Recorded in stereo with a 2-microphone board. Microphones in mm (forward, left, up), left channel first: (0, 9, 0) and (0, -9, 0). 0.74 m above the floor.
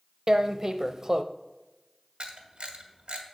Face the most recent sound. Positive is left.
turn(degrees=-75)  # may be behind; listen again after turning